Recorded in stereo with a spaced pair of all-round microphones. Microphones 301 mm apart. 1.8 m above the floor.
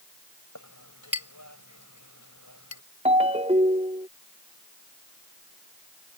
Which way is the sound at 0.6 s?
75° left (ahead or behind).